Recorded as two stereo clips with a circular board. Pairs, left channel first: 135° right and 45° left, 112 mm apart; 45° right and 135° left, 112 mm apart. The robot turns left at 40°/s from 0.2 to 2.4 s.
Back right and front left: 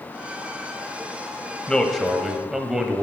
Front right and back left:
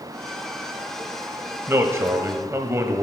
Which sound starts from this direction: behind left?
A man speaking, at 1.7 s.